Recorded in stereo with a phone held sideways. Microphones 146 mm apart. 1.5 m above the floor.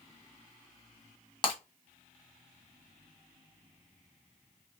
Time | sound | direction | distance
1.4 | breaking glass | 30° left (ahead or behind) | 1.2 m